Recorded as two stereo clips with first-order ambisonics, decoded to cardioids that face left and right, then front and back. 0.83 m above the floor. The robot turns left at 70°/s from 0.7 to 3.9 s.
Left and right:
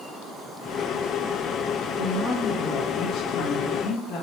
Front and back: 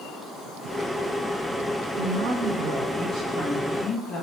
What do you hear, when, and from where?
2.0 s a woman speaking: 165° right, 0.9 m; by 4.2 s 60° left, 0.9 m